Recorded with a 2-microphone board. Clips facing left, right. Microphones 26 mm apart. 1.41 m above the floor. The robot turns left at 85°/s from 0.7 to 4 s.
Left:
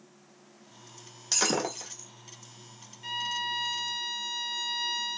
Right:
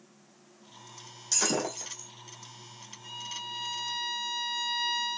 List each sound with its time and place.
1.3 s breaking glass: 30° left (ahead or behind), 1.2 m; by 2.1 s 5° right (ahead or behind), 1.2 m
3.0 s a violin: 70° left, 0.8 m; by 5.2 s 10° right, 0.8 m